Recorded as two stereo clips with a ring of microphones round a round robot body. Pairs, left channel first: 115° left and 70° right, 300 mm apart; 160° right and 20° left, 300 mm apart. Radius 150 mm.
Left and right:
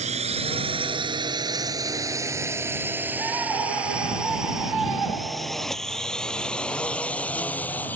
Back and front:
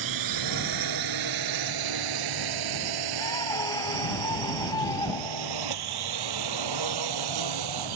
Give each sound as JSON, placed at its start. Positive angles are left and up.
{"t": 0.0, "sound": "a drone", "azimuth_deg": 0}
{"t": 3.2, "sound": "a scream", "azimuth_deg": -80}